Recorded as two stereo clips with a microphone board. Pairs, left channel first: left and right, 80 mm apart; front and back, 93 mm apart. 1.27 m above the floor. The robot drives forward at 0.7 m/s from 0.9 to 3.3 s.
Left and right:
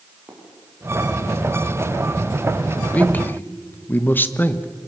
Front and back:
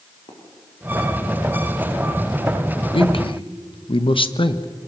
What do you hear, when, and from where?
0.3 s footsteps: 20° right, 7 m; by 2.8 s 15° left, 3 m
2.9 s a man speaking: 20° left, 1.3 m; by 4.7 s 25° left, 1.1 m